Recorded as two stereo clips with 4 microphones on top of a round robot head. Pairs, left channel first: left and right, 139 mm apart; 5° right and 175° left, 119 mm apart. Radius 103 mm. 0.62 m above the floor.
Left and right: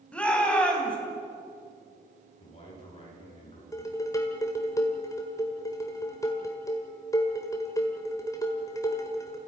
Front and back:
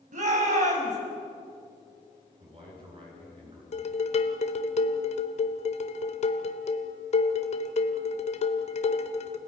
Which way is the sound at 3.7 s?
20° left.